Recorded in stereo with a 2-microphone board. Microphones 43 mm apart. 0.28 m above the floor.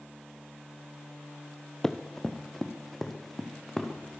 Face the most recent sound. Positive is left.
turn(degrees=0)  # may be behind; listen again after turning